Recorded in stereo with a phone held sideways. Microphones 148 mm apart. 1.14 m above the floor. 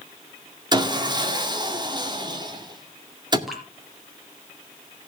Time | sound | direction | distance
0.7 | sawing | 30° right (ahead or behind) | 1.9 m
3.5 | dripping | 5° right (ahead or behind) | 4 m